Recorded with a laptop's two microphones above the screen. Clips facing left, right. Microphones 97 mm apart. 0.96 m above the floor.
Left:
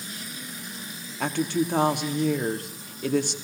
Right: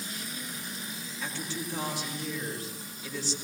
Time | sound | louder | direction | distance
1.2 | a woman speaking | left 13 dB | 65° left (ahead or behind) | 2.5 m